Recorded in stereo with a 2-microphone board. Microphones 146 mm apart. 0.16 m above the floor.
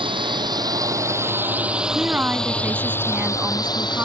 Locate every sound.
0.0 s a drone: 35° right (ahead or behind); by 4.1 s 30° left (ahead or behind)
1.9 s a woman speaking: 15° right (ahead or behind)